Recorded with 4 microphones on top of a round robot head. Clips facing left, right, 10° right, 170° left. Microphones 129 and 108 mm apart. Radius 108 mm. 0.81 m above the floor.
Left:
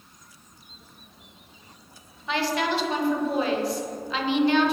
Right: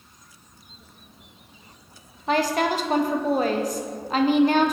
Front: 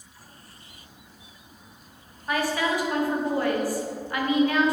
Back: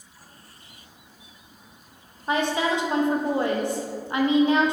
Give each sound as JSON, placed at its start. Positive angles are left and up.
{"t": 2.3, "sound": "a woman speaking", "azimuth_deg": -125, "distance_m": 0.8}